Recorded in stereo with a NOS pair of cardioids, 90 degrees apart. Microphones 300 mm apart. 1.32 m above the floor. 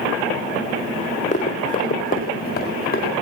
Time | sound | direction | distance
1.3 | running footsteps | 25° left | 7 m